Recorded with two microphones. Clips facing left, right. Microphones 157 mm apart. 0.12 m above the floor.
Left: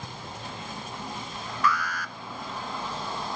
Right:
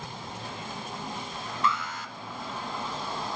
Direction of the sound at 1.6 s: 25° right (ahead or behind).